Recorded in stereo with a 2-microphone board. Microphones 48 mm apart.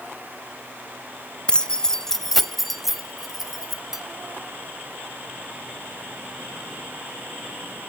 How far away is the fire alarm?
No fire alarm in this recording.